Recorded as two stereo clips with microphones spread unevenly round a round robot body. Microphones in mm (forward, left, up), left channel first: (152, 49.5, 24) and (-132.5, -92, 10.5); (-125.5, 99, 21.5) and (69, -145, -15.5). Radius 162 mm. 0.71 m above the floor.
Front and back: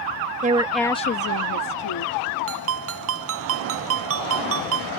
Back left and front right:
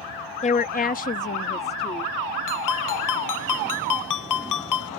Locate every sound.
0.4 s a woman speaking: 170° right; by 2.1 s 50° left
2.5 s a ringtone: 155° left